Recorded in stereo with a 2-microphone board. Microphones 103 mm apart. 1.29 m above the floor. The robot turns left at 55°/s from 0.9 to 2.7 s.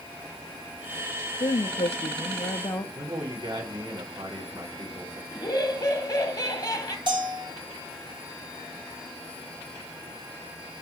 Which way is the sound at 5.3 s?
40° left (ahead or behind).